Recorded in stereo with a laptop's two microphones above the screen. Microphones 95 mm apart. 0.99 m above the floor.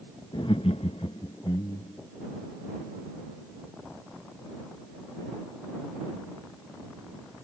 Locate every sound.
0.3 s laughter: 50° left (ahead or behind); by 2.1 s 40° left (ahead or behind)